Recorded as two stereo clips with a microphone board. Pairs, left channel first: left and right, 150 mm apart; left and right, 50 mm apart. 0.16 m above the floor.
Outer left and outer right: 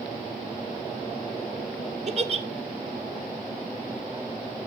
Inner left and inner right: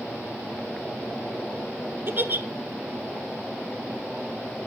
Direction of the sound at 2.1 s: 45° right (ahead or behind).